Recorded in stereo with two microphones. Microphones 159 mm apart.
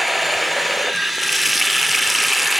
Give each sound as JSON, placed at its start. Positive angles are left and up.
{"t": 0.0, "sound": "running water", "side_deg": 0, "distance_m": 0.7}